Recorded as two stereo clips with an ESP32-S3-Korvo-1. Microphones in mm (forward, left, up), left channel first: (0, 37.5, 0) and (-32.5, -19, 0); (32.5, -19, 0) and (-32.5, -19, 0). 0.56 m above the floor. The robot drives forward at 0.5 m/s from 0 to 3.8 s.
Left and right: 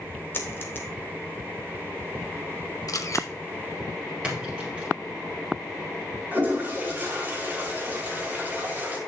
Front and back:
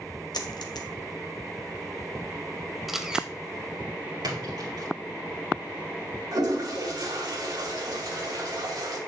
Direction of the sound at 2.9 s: 90° left.